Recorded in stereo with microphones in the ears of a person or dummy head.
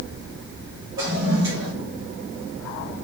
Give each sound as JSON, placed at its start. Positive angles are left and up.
{"t": 1.0, "sound": "a toilet flushing", "side_deg": -20, "distance_m": 1.6}